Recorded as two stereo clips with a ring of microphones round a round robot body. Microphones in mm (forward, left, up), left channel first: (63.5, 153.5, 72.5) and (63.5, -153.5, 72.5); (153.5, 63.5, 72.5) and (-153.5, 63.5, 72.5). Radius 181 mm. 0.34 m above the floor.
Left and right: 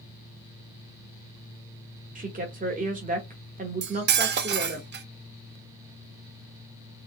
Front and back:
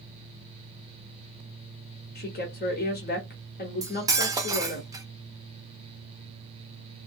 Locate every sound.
2.1 s a woman speaking: 40° right, 1.1 m
3.8 s cutlery clinking: 110° right, 0.5 m